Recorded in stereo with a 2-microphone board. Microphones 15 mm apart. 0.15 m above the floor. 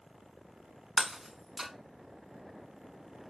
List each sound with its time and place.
1.0 s breaking glass: 35° right (ahead or behind), 0.6 m